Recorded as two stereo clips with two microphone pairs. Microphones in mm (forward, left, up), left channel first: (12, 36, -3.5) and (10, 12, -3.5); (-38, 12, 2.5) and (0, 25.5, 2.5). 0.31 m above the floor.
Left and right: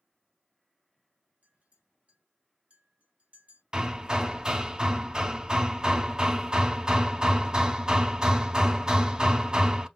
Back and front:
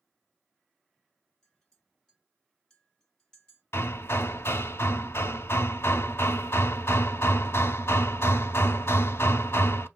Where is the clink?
85° right, 2.0 m.